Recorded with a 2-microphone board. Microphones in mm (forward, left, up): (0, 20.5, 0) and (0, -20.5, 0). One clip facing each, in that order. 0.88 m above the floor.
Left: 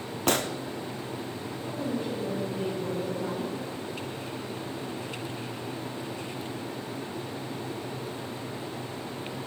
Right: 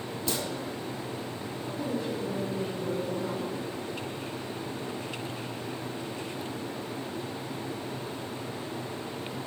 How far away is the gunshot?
About 0.6 m.